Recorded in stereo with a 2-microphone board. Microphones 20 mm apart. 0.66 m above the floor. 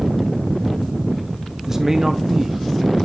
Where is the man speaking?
20° right (ahead or behind), 1.1 m.